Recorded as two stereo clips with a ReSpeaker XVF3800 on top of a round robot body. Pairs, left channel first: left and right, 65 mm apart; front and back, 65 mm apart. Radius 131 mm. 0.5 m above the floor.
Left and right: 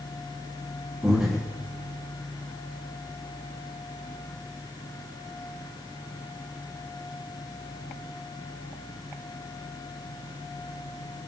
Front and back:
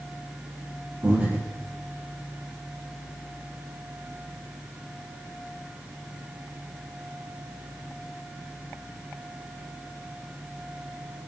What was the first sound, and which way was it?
Breathing, 145° right.